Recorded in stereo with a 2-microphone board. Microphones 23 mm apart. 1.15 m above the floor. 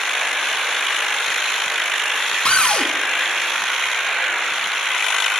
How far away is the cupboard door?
About 0.6 m.